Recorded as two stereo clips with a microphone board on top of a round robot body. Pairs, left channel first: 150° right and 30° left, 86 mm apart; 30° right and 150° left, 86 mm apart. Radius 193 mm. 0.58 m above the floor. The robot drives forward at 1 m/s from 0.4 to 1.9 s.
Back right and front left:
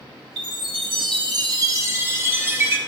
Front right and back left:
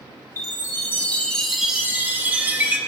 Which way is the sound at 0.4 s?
25° left.